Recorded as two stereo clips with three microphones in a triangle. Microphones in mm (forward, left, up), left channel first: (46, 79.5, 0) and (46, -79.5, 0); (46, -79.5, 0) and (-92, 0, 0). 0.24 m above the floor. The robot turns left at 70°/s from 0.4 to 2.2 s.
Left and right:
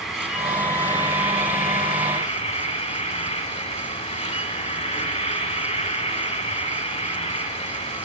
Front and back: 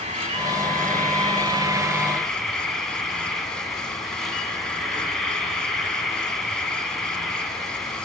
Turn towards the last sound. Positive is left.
turn(degrees=60)